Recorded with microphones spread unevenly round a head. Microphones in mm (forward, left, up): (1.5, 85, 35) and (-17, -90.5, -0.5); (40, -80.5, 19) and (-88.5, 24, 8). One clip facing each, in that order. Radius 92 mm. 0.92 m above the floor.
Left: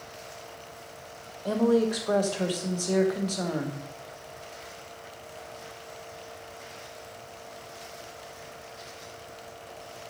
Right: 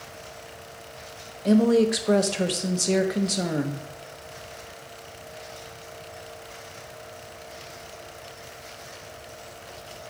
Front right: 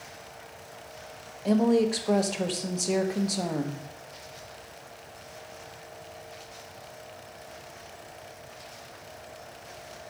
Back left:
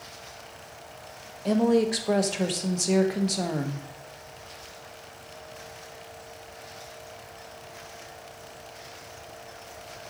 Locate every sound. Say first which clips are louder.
1.4 s a woman speaking: right 4 dB, even; 135° right, 0.9 m